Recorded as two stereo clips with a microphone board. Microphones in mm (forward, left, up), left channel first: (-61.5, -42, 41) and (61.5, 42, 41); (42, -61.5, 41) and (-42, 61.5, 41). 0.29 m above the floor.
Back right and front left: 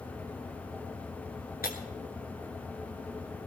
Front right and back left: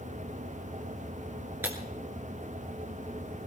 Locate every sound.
1.6 s breaking glass: 160° right, 2.5 m